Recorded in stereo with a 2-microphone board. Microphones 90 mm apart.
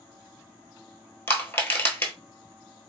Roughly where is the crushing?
Left.